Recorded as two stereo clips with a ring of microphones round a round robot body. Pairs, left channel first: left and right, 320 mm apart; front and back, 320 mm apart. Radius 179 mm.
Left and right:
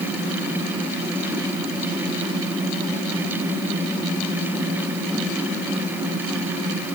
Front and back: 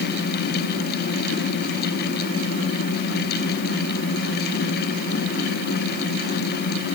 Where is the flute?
I don't hear a flute.